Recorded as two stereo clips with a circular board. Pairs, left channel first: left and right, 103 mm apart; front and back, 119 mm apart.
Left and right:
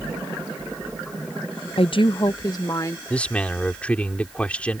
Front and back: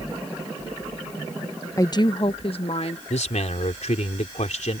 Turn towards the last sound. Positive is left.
turn(degrees=10)